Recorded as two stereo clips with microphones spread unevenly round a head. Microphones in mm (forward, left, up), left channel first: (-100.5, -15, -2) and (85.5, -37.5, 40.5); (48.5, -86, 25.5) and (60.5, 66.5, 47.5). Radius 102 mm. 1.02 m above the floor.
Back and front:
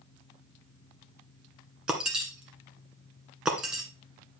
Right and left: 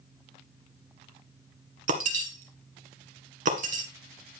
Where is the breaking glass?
70° left, 1.6 m.